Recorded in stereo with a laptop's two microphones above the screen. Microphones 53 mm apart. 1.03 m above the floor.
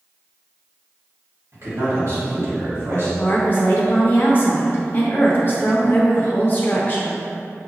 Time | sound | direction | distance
1.5 | a man speaking | 55° right (ahead or behind) | 1.7 m
3.2 | a woman speaking | 40° left (ahead or behind) | 0.6 m